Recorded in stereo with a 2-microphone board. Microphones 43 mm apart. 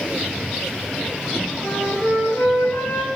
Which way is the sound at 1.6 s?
65° left (ahead or behind).